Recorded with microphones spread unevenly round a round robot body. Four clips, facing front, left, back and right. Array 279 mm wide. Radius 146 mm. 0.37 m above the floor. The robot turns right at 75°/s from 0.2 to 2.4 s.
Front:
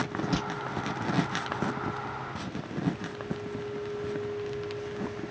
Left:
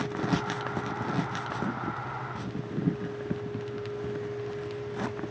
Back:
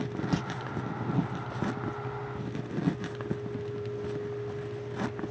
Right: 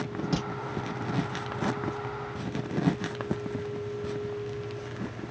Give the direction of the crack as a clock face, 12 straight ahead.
6 o'clock.